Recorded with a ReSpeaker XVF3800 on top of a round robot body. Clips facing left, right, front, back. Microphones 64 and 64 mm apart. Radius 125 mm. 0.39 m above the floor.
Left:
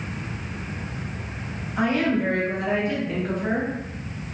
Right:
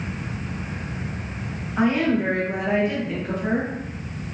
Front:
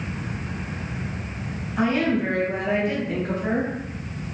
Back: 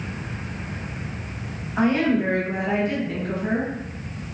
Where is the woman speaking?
150° right, 1.4 m; by 3.7 s 25° left, 1.2 m.